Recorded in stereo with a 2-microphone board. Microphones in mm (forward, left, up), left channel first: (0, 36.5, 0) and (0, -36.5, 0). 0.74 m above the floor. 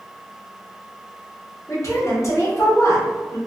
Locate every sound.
1.7 s a woman speaking: 45° left (ahead or behind), 1.4 m